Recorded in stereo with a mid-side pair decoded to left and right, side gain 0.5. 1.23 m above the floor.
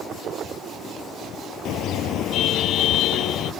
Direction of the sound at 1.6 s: 70° left.